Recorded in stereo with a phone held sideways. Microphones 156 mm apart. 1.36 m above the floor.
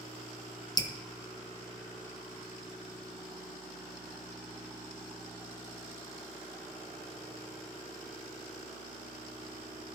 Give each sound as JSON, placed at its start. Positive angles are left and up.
{"t": 0.8, "sound": "dripping", "side_deg": 25, "distance_m": 0.6}